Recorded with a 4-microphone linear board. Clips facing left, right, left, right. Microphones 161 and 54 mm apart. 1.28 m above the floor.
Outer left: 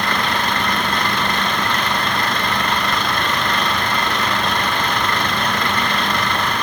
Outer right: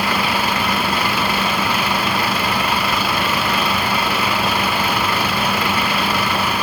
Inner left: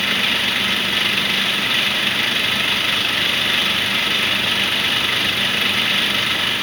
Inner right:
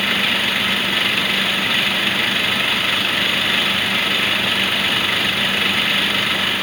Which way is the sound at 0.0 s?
5° right (ahead or behind).